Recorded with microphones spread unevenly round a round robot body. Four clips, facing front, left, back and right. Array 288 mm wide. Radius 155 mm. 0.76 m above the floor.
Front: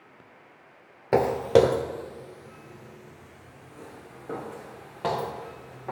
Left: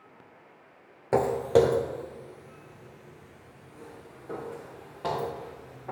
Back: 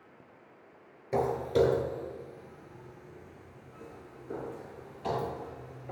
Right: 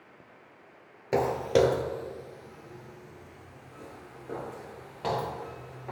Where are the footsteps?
5° left, 0.9 m; by 5.9 s 10° right, 6 m.